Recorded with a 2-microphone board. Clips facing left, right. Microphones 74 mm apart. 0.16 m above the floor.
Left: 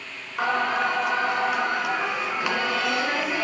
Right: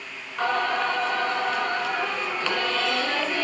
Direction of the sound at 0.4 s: 15° left (ahead or behind).